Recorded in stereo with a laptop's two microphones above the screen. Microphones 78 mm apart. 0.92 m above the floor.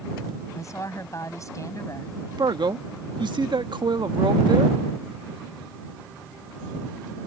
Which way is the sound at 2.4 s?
70° right (ahead or behind).